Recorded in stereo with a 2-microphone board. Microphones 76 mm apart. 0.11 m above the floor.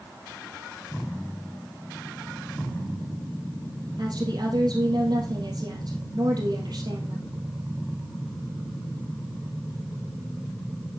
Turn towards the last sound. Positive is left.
turn(degrees=-60)  # may be behind; listen again after turning